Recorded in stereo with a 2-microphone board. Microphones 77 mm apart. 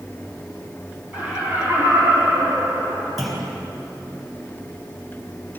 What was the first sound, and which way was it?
Laughter, 15° right (ahead or behind).